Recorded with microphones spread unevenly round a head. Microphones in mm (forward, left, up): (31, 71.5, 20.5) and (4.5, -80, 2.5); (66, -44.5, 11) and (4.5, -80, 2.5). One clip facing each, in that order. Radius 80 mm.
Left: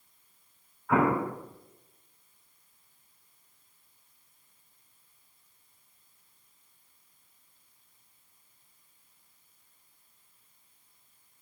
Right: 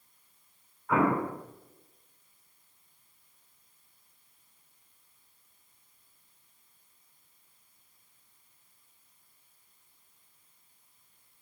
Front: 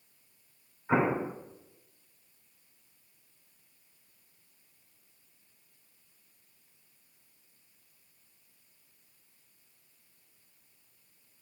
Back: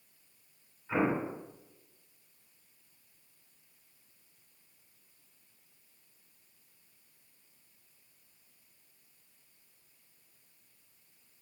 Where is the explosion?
10° right, 3 m.